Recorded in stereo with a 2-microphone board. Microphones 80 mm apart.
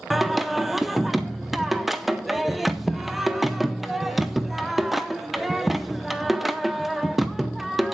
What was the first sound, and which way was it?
Singing, centre (ahead or behind).